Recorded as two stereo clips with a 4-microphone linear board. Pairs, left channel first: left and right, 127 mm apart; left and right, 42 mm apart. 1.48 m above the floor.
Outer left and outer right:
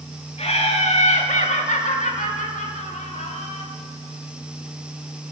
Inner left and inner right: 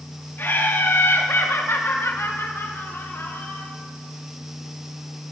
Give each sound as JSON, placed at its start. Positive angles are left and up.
{"t": 0.4, "sound": "laughter", "side_deg": 55, "distance_m": 3.0}